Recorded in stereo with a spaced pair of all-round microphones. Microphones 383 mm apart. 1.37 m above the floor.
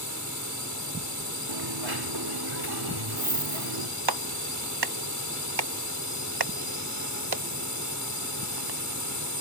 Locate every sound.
0.0 s a drone: 50° left (ahead or behind)
1.5 s a dropped coin: 70° right (ahead or behind)
4.1 s a clap: 75° right (ahead or behind)